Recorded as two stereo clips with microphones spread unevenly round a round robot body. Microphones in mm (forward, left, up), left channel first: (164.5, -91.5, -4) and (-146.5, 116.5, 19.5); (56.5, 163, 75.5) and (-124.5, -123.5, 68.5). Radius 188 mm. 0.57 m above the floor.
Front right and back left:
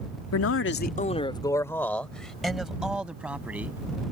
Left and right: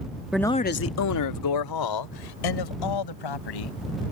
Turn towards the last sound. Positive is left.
turn(degrees=60)